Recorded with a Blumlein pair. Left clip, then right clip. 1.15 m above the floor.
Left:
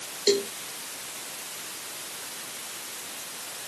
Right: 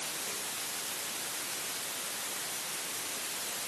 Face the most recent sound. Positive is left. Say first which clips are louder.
# left 15 dB
turn(degrees=45)